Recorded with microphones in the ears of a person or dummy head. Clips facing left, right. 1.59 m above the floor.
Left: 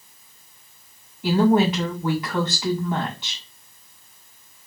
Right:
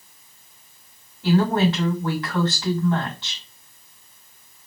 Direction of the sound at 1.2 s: 10° left (ahead or behind).